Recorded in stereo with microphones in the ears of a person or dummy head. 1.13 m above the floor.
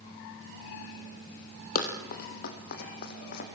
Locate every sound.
1.8 s running footsteps: 50° left (ahead or behind), 2.5 m; by 3.5 s 55° left (ahead or behind), 3.5 m